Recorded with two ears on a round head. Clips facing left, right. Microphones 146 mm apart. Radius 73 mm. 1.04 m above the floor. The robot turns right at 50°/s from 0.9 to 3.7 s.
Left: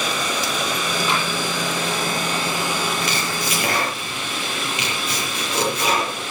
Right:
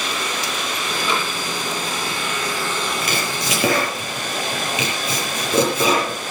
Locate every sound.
0.0 s running water: 75° left, 5.5 m; by 6.3 s 145° right, 5.5 m
1.1 s tapping: 80° right, 8 m; by 1.3 s 85° right, 8 m
3.0 s chopping: 40° right (ahead or behind), 7.5 m; by 6.2 s 75° right (ahead or behind), 7.5 m